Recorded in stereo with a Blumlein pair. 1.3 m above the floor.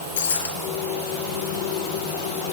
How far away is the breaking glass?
About 6.5 m.